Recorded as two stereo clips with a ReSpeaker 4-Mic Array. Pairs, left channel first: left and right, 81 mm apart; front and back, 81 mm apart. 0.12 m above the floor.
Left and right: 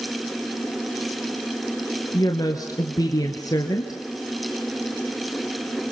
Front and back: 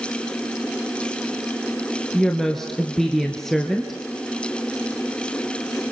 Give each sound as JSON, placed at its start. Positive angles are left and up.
{"t": 2.1, "sound": "a woman speaking", "azimuth_deg": 85, "distance_m": 1.6}